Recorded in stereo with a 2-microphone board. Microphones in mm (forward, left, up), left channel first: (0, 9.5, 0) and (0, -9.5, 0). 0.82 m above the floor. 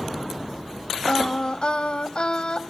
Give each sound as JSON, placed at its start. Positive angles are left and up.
{"t": 1.1, "sound": "singing", "side_deg": 55, "distance_m": 1.2}